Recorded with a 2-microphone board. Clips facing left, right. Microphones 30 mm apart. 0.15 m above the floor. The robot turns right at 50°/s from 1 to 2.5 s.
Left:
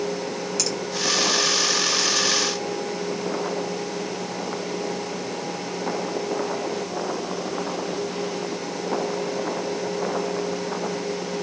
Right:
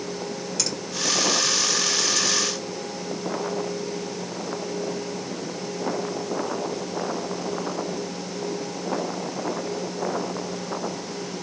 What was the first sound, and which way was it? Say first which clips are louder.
A finger snap: left 1 dB; 15° right (ahead or behind).